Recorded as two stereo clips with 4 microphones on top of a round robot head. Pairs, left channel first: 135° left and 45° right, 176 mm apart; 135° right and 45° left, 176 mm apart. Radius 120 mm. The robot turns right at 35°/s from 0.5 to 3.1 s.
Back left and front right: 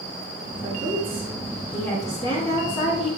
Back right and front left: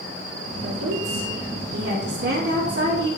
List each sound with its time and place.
0.6 s a woman speaking: 15° left, 2 m; by 3.1 s 105° left, 2 m